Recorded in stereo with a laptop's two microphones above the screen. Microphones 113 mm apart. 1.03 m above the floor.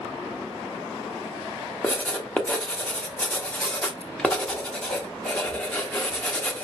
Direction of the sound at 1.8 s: 10° left (ahead or behind).